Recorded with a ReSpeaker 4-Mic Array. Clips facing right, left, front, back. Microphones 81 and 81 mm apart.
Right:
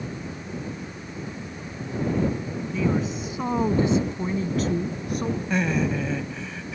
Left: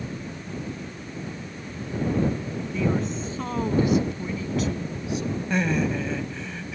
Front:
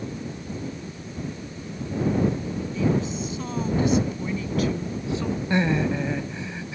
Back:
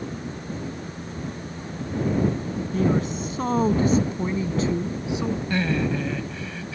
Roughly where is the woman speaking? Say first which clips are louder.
Right 1 dB, back 2 dB; behind.